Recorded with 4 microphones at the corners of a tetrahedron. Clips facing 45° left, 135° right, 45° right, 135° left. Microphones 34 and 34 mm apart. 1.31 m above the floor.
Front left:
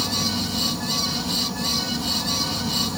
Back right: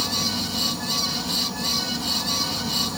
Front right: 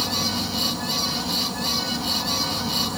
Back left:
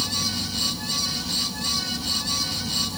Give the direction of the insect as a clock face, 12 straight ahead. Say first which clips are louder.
Front left 1 dB, front right 2 dB; 2 o'clock.